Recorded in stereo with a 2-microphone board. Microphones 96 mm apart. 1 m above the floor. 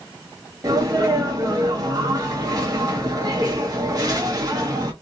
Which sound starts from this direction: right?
A sneeze, at 0.6 s.